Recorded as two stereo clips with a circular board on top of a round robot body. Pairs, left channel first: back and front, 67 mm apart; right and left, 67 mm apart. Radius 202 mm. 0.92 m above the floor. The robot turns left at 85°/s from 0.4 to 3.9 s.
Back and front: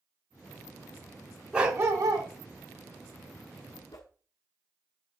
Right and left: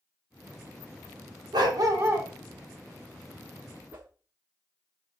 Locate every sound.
1.5 s a dog barking: 75° left, 2 m; by 2.3 s 15° left, 2 m
3.9 s a whoosh: 150° left, 0.5 m